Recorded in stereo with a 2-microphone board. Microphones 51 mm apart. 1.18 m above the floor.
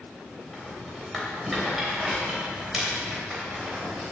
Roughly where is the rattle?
Centre.